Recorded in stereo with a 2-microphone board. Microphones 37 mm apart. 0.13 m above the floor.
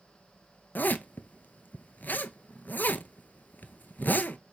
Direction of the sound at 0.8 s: 60° left (ahead or behind).